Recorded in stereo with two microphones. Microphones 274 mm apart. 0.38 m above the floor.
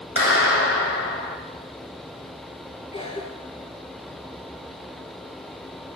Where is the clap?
50° left (ahead or behind), 1.8 m.